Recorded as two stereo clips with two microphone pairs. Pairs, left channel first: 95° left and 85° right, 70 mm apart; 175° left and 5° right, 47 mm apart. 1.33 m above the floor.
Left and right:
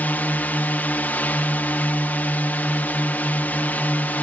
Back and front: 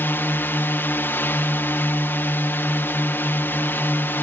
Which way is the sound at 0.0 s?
150° left.